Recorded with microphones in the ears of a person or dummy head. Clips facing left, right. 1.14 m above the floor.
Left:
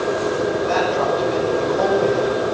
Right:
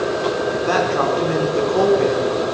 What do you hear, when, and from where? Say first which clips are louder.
0.7 s a man speaking: right 1 dB; 70° right (ahead or behind), 4 m